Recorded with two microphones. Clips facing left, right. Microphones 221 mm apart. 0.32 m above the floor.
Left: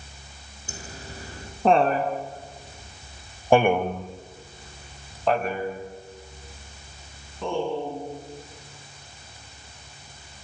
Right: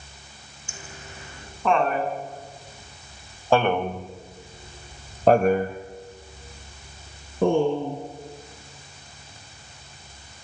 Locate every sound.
0.7 s laughter: 35° left (ahead or behind), 5 m; by 8.0 s 55° right (ahead or behind), 4.5 m